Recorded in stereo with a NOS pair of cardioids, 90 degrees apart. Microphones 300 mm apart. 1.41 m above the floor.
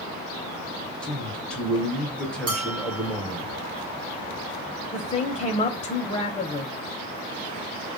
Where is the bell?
55° right, 1.1 m.